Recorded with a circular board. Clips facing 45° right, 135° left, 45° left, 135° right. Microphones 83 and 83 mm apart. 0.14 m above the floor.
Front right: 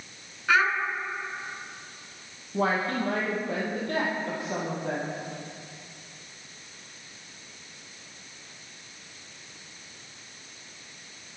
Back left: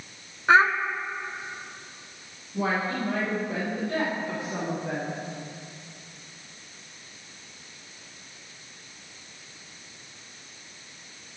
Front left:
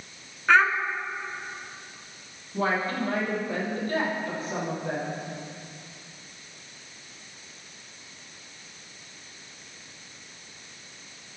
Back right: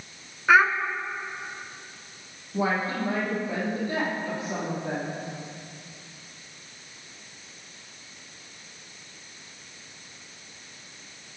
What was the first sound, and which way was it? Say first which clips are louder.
A child speaking: back left 5 dB, back right 1 dB; 150° left.